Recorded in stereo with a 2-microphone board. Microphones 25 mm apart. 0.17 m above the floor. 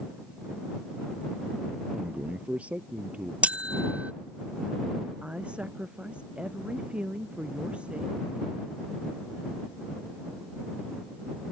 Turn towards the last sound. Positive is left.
turn(degrees=-50)  # may be behind; listen again after turning